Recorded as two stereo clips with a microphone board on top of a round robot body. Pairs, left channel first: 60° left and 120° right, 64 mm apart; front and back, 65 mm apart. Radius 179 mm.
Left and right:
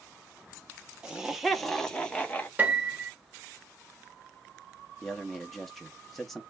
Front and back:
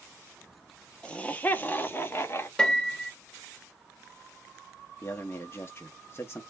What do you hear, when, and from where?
1.0 s laughter: 55° right, 1.5 m; by 2.5 s 5° left, 1.6 m
2.6 s a piano: 70° right, 1.6 m
5.0 s a man speaking: 25° right, 1.1 m